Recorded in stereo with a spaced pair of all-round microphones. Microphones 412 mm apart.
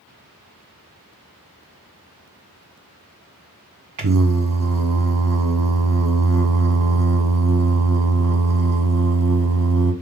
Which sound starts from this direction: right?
Singing, at 4.0 s.